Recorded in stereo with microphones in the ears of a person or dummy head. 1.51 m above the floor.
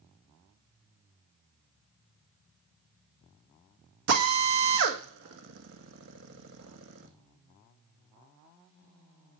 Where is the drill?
55° right (ahead or behind), 1.9 m.